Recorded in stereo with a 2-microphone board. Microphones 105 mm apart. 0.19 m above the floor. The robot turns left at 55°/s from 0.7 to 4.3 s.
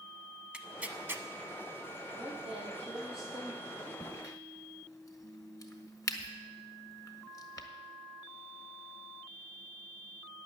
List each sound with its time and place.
0.5 s tearing paper: 10° right (ahead or behind), 0.7 m; by 1.2 s 25° right (ahead or behind), 0.7 m
2.1 s a woman speaking: 70° right, 6.5 m; by 4.0 s 175° right, 6.5 m
4.0 s a crack: 45° left (ahead or behind), 1.3 m; by 7.7 s 30° left (ahead or behind), 1.3 m